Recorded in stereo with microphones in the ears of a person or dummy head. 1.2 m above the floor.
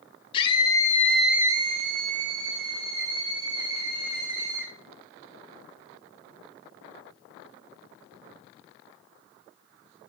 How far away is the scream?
About 1.4 m.